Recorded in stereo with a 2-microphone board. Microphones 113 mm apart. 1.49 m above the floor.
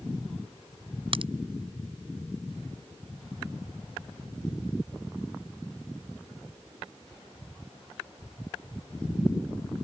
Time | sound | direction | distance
1.1 | a crack | 50° right (ahead or behind) | ?